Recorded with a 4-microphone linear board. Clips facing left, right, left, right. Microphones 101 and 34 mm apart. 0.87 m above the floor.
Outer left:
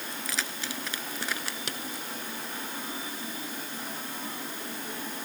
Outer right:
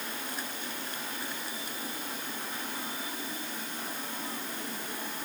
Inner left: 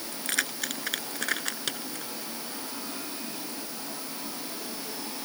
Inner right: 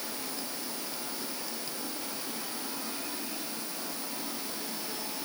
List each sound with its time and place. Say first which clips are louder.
0.1 s keys jangling: outer left 2 dB, inner left 7 dB; 85° left; by 2.1 s 80° left